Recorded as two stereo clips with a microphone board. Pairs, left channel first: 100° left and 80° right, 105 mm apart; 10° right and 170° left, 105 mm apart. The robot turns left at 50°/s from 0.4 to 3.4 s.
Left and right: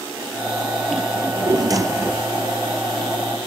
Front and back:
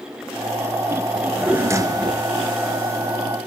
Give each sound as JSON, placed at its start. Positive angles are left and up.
{"t": 1.1, "sound": "a drawer", "azimuth_deg": -100, "distance_m": 2.0}